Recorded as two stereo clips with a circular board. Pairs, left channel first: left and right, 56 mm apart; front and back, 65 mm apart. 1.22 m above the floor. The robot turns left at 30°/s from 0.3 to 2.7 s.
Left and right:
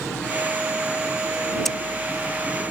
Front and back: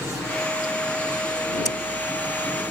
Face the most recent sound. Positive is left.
turn(degrees=-25)